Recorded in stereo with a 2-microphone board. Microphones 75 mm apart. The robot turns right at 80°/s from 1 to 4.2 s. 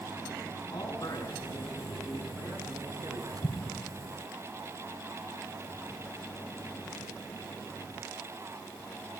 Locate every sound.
0.7 s a man speaking: 110° left, 8 m; by 3.3 s 65° right, 8 m
3.4 s an explosion: 70° left (ahead or behind), 4.5 m; by 3.8 s 40° left (ahead or behind), 4.5 m